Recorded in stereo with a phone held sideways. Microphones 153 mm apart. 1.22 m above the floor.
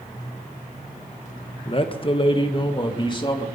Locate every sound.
1.6 s a man speaking: 35° left (ahead or behind), 1.1 m; by 3.5 s 30° left (ahead or behind), 2.5 m